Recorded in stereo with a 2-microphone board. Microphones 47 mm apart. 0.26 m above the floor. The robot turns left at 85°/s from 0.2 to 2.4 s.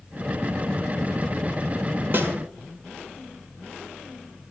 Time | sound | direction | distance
2.1 | a snare drum | 55° right (ahead or behind) | 1.4 m